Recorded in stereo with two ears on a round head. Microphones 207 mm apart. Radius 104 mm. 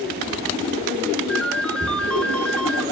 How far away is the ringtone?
About 1.9 m.